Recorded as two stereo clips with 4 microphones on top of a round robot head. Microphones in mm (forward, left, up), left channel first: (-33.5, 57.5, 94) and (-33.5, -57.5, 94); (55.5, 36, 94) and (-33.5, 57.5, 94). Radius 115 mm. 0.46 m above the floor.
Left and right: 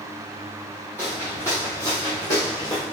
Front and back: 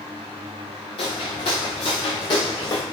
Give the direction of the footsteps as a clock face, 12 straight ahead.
11 o'clock.